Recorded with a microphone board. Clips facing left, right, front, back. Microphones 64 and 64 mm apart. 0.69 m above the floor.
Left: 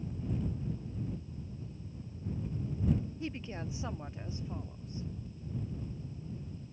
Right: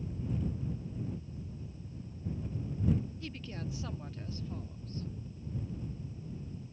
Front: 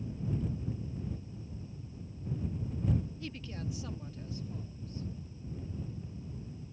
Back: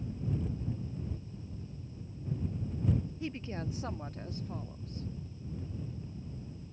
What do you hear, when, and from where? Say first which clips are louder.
3.2 s a woman speaking: left 3 dB, back 4 dB; 130° left; by 5.1 s 160° left